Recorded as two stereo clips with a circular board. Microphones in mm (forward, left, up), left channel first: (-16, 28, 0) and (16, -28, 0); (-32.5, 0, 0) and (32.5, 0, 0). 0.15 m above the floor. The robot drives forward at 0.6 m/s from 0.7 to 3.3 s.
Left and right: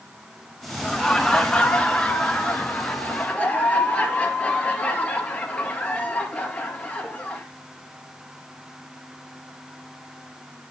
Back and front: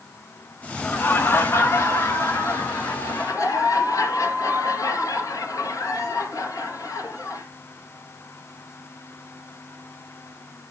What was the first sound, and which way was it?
Laughter, 160° right.